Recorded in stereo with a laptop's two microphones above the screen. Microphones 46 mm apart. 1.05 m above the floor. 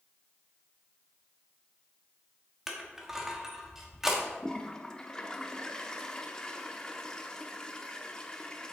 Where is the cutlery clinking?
I don't hear cutlery clinking.